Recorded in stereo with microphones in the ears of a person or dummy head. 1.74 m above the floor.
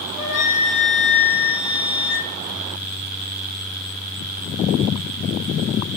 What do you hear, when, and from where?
0.2 s a flute: 45° left (ahead or behind), 1.6 m